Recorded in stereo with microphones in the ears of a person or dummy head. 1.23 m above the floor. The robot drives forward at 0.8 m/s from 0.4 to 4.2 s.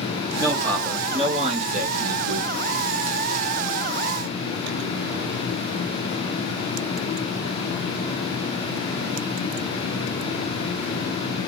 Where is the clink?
No clink in this recording.